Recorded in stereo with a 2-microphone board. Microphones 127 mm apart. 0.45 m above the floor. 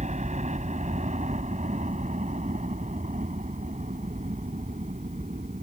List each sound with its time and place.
0.0 s a helicopter: 65° right (ahead or behind); by 5.6 s 70° right (ahead or behind)